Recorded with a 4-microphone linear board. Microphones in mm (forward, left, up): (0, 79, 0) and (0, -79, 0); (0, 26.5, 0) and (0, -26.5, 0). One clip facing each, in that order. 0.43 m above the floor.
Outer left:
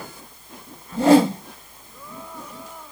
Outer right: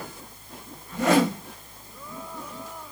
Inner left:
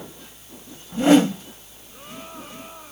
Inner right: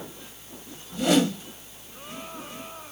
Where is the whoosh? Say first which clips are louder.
Outer left 6 dB, inner left 6 dB; 30° left (ahead or behind), 0.6 m.